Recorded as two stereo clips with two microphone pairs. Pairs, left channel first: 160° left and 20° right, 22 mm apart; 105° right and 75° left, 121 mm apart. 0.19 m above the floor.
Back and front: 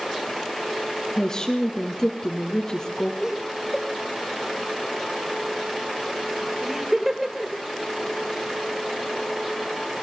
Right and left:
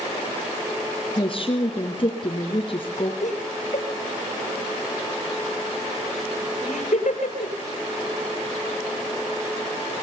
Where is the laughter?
95° right, 4.5 m.